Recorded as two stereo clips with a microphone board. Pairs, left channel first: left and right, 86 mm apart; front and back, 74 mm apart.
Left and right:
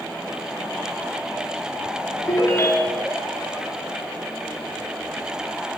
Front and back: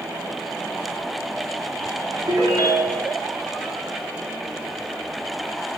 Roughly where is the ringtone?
Behind left.